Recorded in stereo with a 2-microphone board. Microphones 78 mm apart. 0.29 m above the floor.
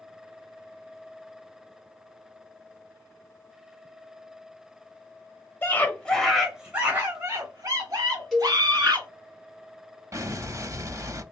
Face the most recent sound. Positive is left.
turn(degrees=-40)  # may be behind; listen again after turning